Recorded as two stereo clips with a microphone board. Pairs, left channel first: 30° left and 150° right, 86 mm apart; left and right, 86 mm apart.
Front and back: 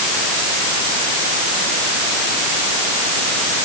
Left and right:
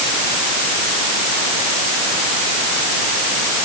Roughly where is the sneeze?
I don't hear a sneeze.